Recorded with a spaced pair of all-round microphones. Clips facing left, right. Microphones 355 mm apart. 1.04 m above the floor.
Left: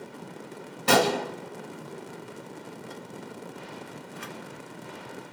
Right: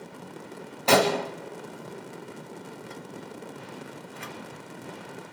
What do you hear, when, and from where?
0.9 s a gunshot: 25° left (ahead or behind), 0.9 m